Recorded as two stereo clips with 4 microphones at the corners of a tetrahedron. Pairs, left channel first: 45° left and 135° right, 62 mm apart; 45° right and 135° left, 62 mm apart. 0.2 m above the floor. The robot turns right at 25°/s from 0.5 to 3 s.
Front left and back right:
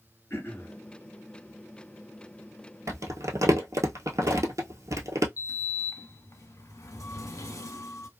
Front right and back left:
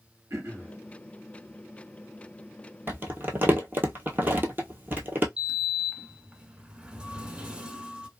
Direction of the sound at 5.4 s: 65° left.